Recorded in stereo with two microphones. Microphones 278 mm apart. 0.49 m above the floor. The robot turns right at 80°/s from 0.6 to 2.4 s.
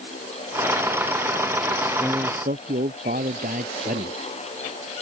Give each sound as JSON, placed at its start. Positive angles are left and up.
{"t": 1.7, "sound": "a man speaking", "azimuth_deg": 160}